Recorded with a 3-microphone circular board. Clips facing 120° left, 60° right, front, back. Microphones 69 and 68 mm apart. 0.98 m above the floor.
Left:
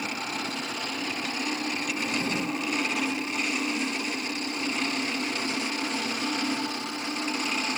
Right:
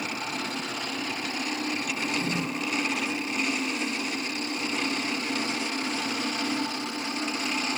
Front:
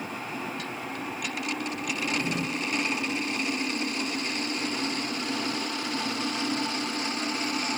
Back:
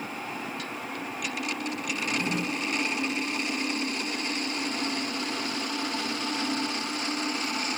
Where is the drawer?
165° right, 2.5 m.